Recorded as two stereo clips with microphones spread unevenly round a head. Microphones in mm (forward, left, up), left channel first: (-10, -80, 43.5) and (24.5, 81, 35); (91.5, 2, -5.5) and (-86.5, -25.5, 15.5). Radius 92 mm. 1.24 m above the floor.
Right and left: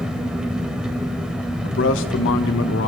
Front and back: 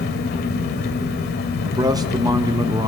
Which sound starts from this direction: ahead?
An engine running, at 0.0 s.